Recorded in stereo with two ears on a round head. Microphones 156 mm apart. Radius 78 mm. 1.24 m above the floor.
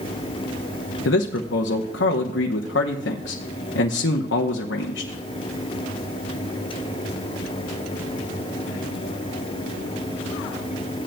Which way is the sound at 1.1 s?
75° left (ahead or behind).